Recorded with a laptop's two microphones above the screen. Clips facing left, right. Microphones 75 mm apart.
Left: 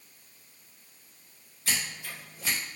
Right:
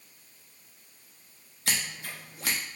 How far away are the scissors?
About 0.8 m.